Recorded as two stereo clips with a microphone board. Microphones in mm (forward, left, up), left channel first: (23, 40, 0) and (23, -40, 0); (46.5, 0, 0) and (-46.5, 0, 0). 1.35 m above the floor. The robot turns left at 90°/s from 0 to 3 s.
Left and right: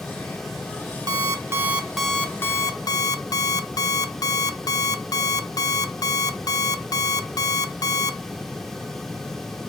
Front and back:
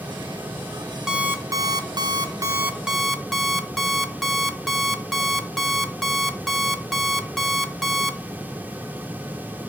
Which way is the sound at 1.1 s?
100° right.